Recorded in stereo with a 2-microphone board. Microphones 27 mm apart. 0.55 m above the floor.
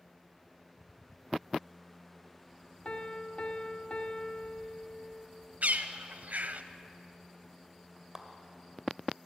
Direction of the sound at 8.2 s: 15° right (ahead or behind).